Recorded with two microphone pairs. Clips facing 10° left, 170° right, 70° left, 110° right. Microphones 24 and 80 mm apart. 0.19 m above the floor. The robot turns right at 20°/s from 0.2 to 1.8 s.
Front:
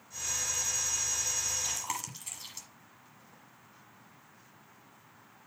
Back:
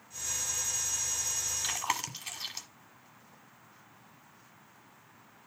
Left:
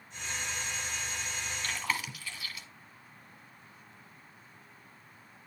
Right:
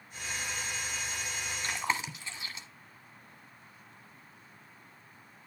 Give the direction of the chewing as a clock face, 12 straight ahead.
5 o'clock.